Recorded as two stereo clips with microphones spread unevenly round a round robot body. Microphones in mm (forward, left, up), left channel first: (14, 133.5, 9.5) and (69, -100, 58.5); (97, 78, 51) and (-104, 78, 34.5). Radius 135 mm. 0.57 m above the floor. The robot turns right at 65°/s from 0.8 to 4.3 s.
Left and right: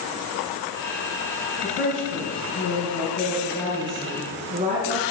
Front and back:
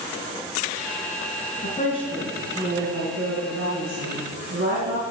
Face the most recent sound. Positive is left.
turn(degrees=-140)